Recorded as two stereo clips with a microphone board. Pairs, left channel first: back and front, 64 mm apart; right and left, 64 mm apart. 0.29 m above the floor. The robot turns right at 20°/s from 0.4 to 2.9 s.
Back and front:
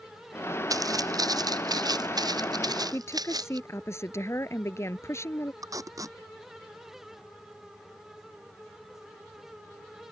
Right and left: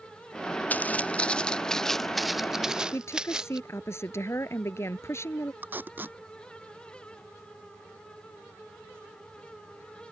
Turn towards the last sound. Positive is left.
turn(degrees=30)